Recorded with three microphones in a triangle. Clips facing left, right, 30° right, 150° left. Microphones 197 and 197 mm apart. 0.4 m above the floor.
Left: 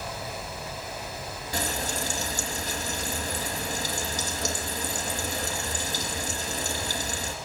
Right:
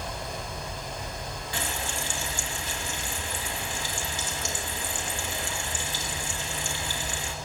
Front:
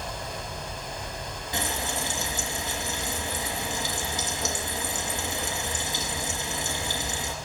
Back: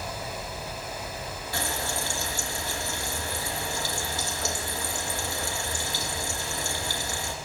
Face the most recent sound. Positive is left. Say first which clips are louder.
# left 5 dB, front 1 dB
turn(degrees=40)